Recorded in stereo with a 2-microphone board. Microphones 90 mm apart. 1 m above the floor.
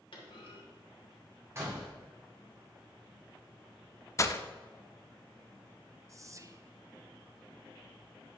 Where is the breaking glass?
35° left (ahead or behind), 0.6 m.